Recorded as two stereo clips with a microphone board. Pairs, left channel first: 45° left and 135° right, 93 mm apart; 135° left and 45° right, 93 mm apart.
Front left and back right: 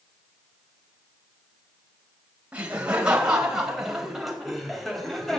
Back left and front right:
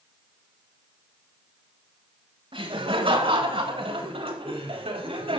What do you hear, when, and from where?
2.5 s laughter: 60° right, 4.5 m; by 5.4 s 40° right, 5 m